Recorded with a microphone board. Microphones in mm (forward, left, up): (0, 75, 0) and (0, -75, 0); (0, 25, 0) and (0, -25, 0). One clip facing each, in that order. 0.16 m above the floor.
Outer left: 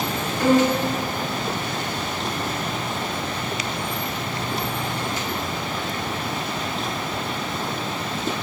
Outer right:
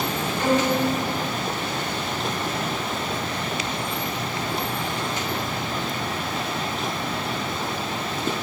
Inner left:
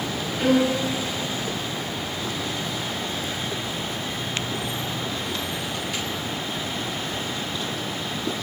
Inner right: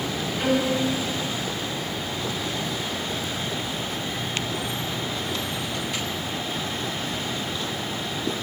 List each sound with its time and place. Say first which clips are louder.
0.4 s a violin: outer left 4 dB, inner left 3 dB; 20° right (ahead or behind), 6 m